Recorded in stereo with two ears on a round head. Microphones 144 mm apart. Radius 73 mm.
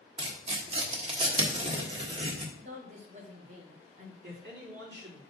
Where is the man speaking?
90° right, 4 m.